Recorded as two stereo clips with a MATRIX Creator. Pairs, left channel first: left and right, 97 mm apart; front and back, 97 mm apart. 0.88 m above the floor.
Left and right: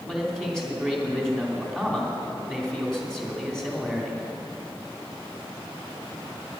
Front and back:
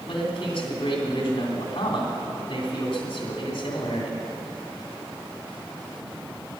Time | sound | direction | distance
0.1 | a man speaking | 5° left | 3 m